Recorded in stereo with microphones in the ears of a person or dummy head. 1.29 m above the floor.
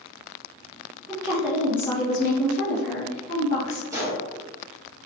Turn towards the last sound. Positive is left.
turn(degrees=-20)  # may be behind; listen again after turning